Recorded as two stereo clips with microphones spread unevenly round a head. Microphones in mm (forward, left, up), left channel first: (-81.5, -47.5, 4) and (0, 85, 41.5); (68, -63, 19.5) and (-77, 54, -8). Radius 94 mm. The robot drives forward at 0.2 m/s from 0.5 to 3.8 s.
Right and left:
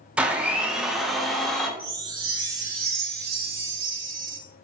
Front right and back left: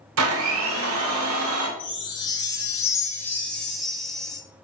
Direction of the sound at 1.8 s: 25° left.